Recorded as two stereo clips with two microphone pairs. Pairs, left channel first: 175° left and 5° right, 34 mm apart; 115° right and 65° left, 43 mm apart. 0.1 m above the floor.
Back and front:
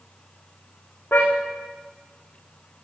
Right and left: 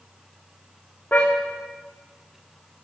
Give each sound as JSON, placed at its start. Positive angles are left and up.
{"t": 1.1, "sound": "a car horn", "azimuth_deg": -170, "distance_m": 5.5}